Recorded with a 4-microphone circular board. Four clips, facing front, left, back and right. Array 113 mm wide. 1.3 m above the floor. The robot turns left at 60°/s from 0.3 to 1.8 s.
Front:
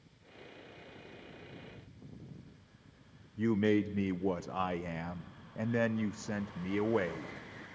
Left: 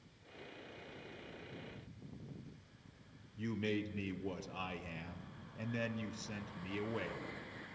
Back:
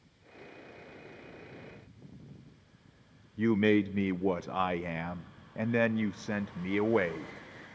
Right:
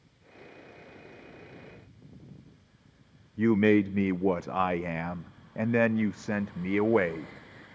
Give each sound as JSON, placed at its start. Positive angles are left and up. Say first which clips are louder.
{"t": 3.4, "sound": "a man speaking", "louder": "right 17 dB, back 3 dB", "azimuth_deg": -105, "distance_m": 0.5}